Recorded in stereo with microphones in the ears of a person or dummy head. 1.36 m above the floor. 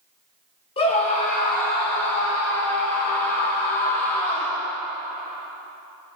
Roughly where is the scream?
Left.